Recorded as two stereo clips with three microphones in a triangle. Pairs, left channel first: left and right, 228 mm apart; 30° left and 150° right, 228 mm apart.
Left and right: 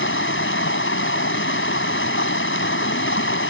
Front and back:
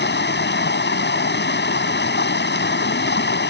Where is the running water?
65° left.